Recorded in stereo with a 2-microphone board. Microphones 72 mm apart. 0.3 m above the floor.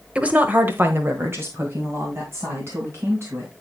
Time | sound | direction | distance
0.1 | a woman speaking | 15° right (ahead or behind) | 1.2 m